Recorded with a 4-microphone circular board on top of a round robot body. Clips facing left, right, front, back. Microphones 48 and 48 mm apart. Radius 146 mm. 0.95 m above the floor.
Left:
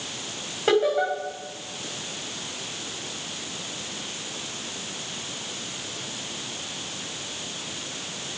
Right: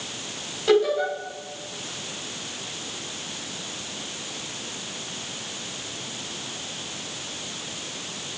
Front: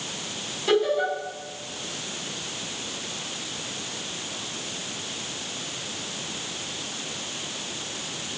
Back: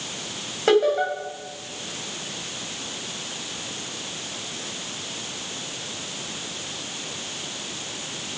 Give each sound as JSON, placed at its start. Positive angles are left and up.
{"t": 0.7, "sound": "laughter", "azimuth_deg": 145, "distance_m": 8.0}